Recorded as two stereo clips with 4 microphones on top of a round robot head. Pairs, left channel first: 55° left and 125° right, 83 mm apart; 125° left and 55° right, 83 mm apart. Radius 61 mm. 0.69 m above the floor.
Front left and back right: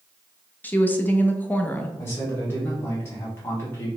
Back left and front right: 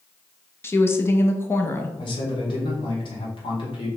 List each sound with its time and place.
0.6 s a woman speaking: 100° left, 0.8 m
2.0 s a man speaking: 115° left, 1.6 m